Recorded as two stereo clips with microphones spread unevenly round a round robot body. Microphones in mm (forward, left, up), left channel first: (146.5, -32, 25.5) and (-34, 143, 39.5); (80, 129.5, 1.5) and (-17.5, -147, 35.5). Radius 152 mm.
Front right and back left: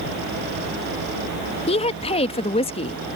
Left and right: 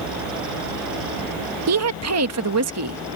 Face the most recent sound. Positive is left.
turn(degrees=-100)